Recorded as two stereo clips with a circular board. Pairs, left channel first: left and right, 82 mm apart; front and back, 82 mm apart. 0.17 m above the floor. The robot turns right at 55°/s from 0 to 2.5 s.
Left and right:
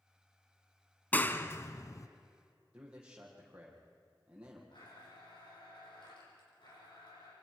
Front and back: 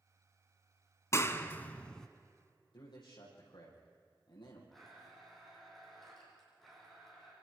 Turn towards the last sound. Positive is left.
turn(degrees=85)